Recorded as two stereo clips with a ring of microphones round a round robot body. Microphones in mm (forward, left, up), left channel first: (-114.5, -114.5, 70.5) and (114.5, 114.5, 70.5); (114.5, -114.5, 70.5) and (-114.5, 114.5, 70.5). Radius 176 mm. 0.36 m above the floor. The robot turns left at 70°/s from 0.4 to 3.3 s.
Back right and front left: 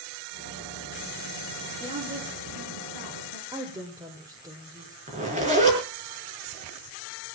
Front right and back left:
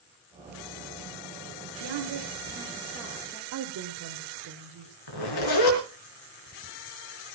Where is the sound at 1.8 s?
130° left, 6 m; by 3.4 s 25° left, 6 m.